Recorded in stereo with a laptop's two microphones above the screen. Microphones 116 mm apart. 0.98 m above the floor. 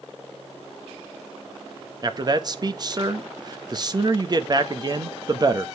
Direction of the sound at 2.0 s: 35° right (ahead or behind).